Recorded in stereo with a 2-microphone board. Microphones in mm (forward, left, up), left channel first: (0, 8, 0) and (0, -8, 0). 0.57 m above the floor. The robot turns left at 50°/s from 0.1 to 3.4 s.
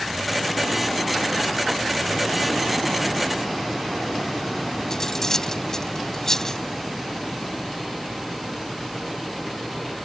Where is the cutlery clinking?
35° left (ahead or behind).